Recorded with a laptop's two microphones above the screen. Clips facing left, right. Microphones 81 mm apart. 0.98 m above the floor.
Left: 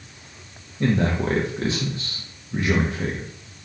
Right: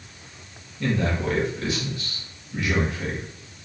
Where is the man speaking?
35° left (ahead or behind), 0.6 m.